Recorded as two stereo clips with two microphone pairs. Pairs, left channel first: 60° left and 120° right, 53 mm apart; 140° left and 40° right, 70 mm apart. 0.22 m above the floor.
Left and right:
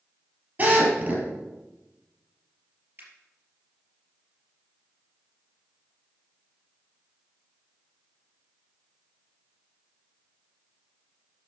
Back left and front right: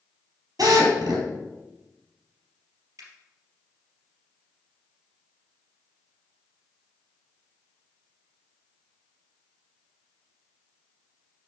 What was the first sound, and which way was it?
A drill, 65° right.